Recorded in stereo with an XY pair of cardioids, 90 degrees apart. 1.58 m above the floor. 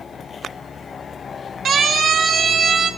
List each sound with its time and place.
1.6 s a siren: 70° right, 6 m; by 2.9 s 60° right, 6.5 m